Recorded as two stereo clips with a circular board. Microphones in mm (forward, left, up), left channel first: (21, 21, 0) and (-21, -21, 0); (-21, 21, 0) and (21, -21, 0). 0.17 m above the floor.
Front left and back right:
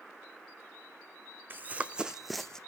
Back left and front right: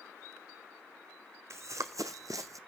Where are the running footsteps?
80° right, 0.7 m; by 2.6 s 30° right, 0.6 m.